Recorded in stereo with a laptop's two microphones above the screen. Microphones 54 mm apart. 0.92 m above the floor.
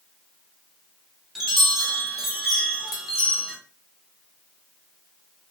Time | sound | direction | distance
1.4 | a chime | 5° right (ahead or behind) | 0.6 m